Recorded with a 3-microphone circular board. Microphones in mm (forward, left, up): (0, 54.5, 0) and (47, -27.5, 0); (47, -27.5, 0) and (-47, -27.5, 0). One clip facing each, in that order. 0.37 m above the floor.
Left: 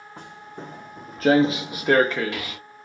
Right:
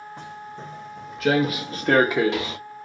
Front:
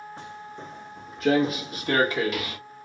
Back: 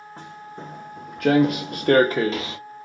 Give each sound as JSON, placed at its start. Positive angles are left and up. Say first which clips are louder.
{"t": 0.2, "sound": "footsteps", "louder": "left 2 dB, back 1 dB", "azimuth_deg": 135, "distance_m": 1.6}